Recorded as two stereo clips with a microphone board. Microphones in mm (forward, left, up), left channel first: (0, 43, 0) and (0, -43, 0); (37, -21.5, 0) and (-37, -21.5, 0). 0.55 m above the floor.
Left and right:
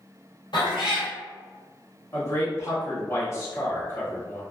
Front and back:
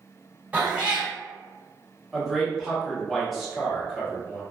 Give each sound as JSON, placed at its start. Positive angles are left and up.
{"t": 0.5, "sound": "a cat meowing", "azimuth_deg": 105, "distance_m": 1.0}
{"t": 2.1, "sound": "a man speaking", "azimuth_deg": 90, "distance_m": 0.9}